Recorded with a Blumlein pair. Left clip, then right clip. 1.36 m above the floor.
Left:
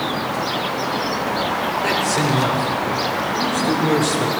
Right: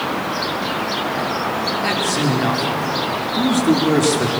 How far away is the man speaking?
About 4.5 m.